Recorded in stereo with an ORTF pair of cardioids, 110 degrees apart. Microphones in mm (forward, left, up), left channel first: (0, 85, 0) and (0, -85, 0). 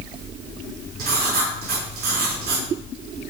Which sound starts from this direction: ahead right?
Writing, at 1.0 s.